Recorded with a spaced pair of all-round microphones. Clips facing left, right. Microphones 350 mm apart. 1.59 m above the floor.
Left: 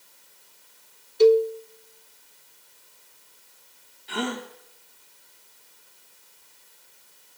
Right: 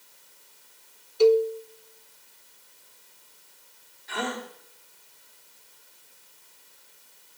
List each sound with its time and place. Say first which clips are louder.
1.2 s a cowbell: left 2 dB; 25° left (ahead or behind), 0.6 m
4.1 s a gasp: left 3 dB; 40° left (ahead or behind), 1.7 m